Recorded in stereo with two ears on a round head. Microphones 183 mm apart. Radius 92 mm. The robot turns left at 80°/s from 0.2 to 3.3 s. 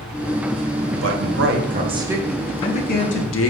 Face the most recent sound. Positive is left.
turn(degrees=100)